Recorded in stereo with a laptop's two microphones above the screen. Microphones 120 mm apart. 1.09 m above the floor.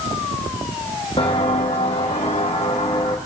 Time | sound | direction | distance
1.2 | footsteps | 50° left (ahead or behind) | 1.9 m